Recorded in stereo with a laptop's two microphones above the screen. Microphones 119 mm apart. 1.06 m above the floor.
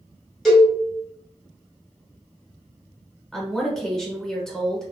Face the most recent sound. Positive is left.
turn(degrees=5)  # may be behind; listen again after turning